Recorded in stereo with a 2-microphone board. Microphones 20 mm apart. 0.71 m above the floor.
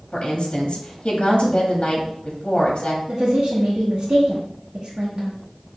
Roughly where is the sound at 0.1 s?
Left.